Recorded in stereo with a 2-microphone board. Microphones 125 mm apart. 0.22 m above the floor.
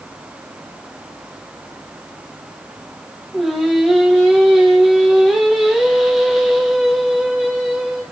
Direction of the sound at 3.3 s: 5° right (ahead or behind).